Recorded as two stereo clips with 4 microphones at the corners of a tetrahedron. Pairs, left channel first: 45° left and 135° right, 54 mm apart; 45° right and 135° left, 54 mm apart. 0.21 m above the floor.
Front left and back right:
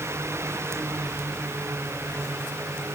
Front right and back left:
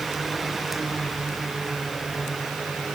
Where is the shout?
No shout in this recording.